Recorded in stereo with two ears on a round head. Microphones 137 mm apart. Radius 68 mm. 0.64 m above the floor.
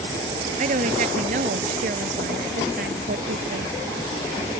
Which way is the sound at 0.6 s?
50° right (ahead or behind).